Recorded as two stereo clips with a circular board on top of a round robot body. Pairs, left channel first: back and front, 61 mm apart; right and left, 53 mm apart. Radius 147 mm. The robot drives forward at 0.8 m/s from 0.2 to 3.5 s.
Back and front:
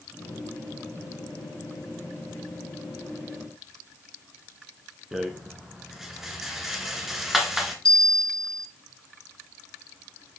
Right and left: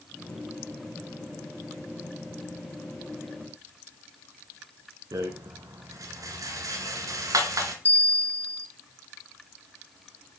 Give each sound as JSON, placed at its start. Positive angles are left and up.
{"t": 5.1, "sound": "a rattle", "azimuth_deg": 85, "distance_m": 1.2}
{"t": 7.8, "sound": "a bell", "azimuth_deg": -110, "distance_m": 1.2}